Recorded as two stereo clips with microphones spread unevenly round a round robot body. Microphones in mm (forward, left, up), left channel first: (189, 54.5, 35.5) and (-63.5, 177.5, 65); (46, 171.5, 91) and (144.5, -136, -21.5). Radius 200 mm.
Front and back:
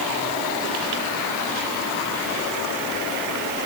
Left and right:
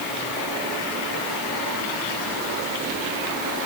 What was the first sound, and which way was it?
Only background noise.